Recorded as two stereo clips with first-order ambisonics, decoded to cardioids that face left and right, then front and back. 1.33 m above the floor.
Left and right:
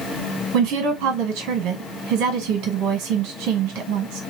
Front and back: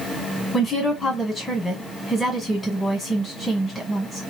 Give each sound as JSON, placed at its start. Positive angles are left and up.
{"t": 0.5, "sound": "a woman speaking", "azimuth_deg": -80, "distance_m": 1.5}